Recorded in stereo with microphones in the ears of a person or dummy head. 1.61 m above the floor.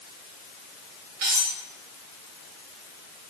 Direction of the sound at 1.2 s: 50° right (ahead or behind).